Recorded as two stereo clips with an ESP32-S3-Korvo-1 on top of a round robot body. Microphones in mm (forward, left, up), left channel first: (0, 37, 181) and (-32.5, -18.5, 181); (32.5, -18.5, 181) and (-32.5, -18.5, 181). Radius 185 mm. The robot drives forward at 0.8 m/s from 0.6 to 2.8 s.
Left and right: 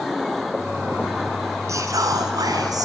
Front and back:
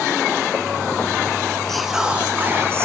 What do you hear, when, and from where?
1.7 s whispering: 85° right, 1.1 m; by 2.9 s 130° right, 1.4 m